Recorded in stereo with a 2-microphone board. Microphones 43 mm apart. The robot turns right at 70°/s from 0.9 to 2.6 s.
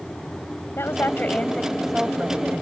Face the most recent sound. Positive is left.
turn(degrees=-125)